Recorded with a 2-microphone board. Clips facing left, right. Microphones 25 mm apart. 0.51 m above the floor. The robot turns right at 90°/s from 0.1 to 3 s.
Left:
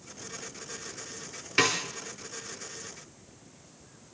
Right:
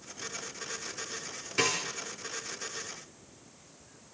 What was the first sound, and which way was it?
A snare drum, 30° left (ahead or behind).